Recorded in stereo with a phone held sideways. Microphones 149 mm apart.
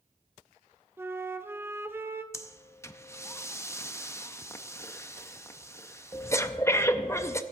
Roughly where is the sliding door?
I don't hear a sliding door.